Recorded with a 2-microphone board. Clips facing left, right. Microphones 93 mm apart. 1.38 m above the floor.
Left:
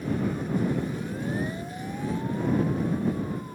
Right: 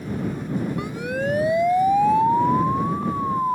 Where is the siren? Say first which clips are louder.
Right 5 dB; 75° right (ahead or behind); by 3.6 s 85° right.